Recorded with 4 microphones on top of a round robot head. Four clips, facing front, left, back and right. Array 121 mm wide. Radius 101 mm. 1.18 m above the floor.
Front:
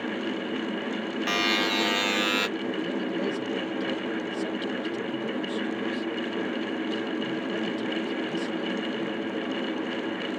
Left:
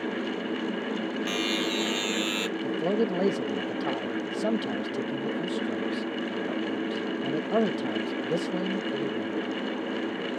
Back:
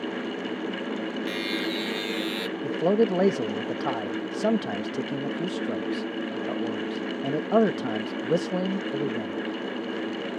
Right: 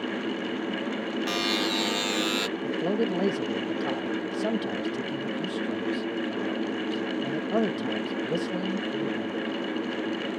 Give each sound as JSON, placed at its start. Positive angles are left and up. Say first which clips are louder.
{"t": 1.3, "sound": "a buzzer", "louder": "right 2 dB, front 3 dB", "azimuth_deg": -15}
{"t": 2.6, "sound": "a man speaking", "louder": "left 1 dB, back 7 dB", "azimuth_deg": 175}